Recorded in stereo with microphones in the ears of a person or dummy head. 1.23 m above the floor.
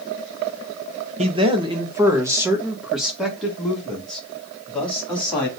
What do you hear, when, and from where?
1.2 s a man speaking: 30° right (ahead or behind), 0.8 m; by 5.5 s 10° left (ahead or behind), 3 m